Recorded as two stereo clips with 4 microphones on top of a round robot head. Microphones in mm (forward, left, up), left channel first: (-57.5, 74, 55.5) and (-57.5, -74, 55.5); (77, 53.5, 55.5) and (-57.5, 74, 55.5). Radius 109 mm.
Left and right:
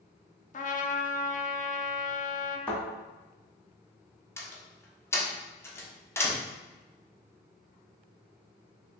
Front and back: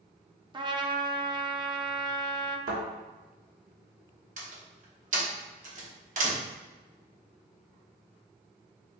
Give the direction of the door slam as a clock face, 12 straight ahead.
7 o'clock.